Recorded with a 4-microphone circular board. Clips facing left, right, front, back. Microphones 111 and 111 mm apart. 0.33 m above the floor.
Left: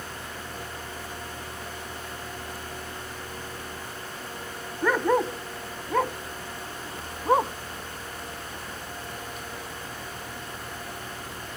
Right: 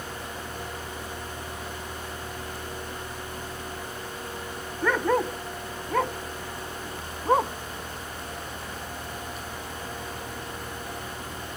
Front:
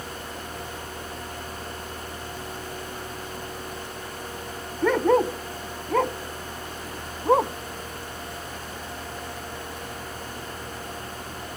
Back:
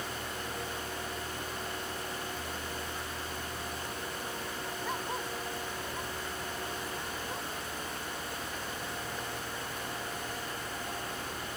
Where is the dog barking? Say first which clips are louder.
Left 1 dB, front 19 dB; 5° left; by 7.5 s straight ahead.